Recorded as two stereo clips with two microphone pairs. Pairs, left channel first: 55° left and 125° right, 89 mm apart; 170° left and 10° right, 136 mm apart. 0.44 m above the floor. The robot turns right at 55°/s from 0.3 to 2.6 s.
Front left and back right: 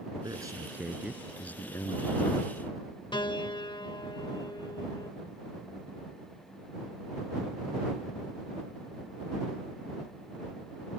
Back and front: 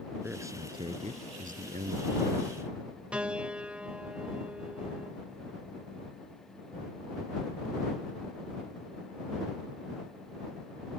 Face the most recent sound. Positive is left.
turn(degrees=75)